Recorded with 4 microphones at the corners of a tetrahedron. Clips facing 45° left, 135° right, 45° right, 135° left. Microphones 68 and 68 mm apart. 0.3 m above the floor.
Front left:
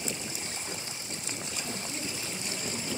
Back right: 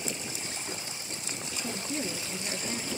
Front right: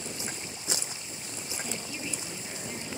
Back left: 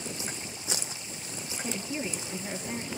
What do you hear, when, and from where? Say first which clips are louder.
1.6 s a woman speaking: back right 7 dB, back left 6 dB; 160° right, 6 m